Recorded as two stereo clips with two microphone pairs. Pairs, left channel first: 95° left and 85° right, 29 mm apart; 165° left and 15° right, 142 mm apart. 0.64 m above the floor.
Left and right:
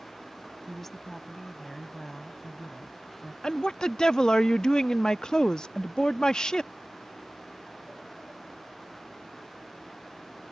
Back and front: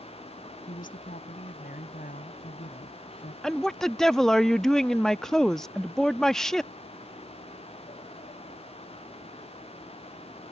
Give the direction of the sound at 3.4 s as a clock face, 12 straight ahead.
9 o'clock.